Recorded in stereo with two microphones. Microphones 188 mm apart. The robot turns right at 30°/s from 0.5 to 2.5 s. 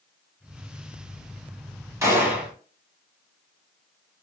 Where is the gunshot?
15° right (ahead or behind), 0.8 m; by 2.5 s 5° right (ahead or behind), 0.8 m.